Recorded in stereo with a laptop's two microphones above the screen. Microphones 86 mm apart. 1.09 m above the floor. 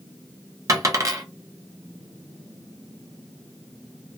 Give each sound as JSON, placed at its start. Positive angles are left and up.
{"t": 0.7, "sound": "a dropped coin", "side_deg": -40, "distance_m": 0.5}